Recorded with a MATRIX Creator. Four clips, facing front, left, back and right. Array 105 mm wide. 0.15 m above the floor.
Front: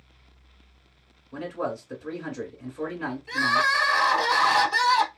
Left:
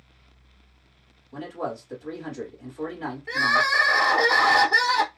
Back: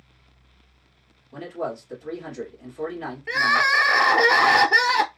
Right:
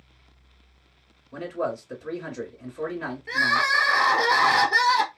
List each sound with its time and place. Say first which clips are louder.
1.3 s a man speaking: right 3 dB, even; 55° right, 1.7 m
3.3 s crying: left 1 dB, back 3 dB; straight behind, 0.6 m